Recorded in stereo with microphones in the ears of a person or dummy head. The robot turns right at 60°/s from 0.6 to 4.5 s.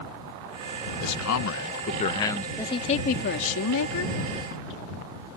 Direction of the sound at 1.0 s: 85° left.